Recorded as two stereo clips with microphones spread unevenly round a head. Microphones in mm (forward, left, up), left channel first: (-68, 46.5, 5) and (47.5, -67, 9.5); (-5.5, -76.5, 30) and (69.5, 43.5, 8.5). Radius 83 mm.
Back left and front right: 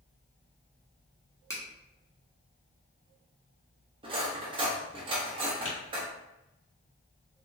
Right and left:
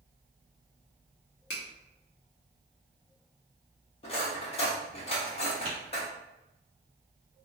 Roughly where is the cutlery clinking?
Right.